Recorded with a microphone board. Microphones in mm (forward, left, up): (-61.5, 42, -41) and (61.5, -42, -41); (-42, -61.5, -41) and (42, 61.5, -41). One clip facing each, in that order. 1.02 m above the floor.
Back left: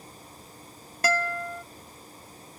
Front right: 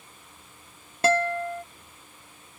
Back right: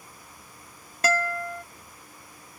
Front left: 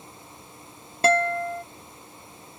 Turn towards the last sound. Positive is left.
turn(degrees=15)